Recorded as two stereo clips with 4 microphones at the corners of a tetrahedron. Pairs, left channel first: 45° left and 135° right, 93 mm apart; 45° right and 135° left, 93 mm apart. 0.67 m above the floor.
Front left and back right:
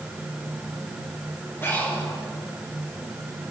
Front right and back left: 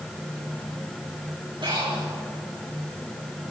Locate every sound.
1.6 s breathing: 105° left, 6 m